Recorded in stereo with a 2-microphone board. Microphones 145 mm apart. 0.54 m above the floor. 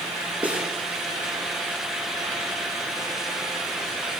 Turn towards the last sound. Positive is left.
turn(degrees=-10)  # may be behind; listen again after turning